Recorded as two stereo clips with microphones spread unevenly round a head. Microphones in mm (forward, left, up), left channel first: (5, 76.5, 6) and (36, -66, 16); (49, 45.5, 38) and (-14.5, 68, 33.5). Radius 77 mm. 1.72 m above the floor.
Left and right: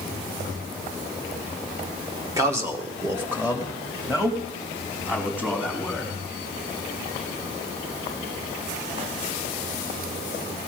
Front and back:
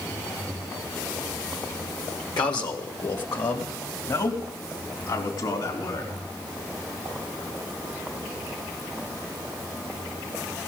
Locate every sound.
2.4 s a man speaking: 10° right, 1.4 m; by 6.1 s straight ahead, 3.5 m